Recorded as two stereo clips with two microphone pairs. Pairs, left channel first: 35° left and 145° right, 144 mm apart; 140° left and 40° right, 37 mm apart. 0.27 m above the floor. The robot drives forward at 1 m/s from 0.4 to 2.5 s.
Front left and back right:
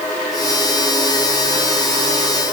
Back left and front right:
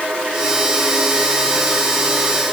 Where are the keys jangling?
No keys jangling in this recording.